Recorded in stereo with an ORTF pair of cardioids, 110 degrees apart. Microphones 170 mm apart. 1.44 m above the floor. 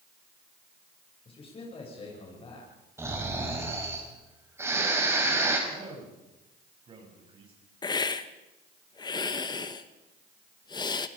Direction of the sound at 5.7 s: 35° right.